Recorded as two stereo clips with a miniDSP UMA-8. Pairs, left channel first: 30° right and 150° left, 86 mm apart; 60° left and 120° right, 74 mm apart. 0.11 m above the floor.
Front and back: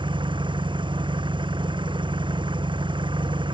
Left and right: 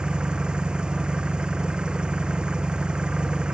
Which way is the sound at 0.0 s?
165° left.